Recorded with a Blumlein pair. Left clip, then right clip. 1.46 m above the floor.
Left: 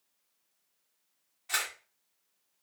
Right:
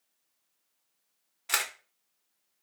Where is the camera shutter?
25° right, 0.9 m.